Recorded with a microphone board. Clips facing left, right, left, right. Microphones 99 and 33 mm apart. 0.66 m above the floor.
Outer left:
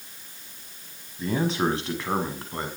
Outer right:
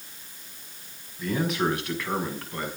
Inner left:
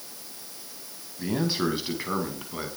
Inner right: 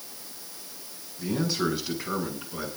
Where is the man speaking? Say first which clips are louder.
Outer left 1 dB, inner left 1 dB; 30° left (ahead or behind), 5 m; by 2.7 s 25° left (ahead or behind), 6 m.